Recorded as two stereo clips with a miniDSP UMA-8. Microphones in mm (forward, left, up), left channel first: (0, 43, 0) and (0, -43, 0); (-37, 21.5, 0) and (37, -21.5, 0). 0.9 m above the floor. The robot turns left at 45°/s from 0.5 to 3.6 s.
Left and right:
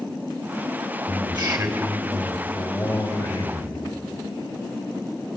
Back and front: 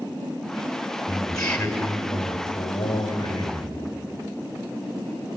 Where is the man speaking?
110° right, 4 m; by 3.9 s 135° left, 4 m.